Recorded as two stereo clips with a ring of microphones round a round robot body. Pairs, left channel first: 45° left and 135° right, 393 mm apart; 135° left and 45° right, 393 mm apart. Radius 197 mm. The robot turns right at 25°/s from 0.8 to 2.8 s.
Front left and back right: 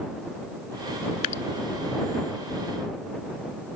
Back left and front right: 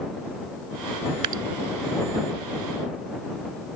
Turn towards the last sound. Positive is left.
turn(degrees=40)